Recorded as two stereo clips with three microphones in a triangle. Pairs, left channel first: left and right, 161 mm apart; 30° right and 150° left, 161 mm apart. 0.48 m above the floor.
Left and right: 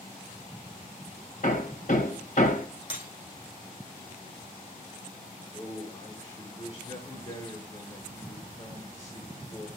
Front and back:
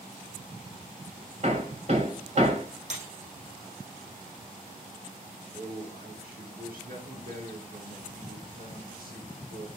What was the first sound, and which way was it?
Hammering, 110° left.